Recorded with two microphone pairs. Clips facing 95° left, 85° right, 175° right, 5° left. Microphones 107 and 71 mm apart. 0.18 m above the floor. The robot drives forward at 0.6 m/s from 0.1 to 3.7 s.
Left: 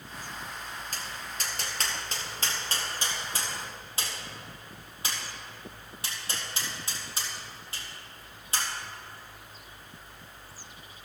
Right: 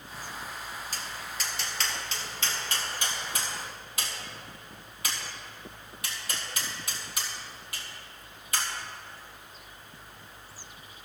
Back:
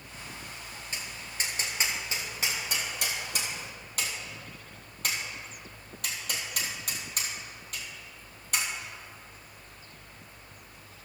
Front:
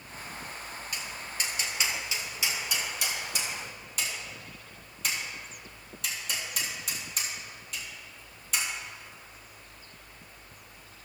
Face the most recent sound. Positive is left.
turn(degrees=150)